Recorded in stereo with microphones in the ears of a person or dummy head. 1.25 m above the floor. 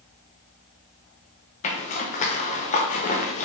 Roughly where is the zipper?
Left.